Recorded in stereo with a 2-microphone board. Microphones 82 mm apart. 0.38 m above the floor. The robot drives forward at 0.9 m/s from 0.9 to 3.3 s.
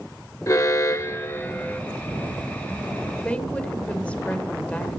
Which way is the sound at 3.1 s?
15° left (ahead or behind).